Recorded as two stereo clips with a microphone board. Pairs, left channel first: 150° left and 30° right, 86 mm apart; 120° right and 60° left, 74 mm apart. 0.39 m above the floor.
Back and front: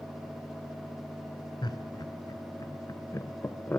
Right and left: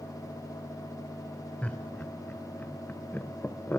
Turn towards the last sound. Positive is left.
turn(degrees=-155)